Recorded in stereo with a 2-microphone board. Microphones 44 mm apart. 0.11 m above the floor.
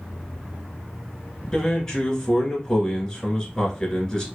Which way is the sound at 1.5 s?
15° left (ahead or behind).